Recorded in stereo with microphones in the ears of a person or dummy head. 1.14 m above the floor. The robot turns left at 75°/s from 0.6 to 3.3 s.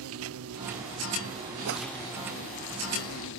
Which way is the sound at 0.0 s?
85° right.